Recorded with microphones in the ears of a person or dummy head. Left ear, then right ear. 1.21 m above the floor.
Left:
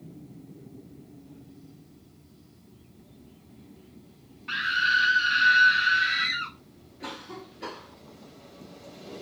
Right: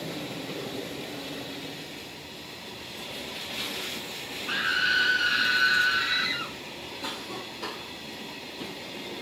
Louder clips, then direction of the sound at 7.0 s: Right 2 dB; 15° right (ahead or behind).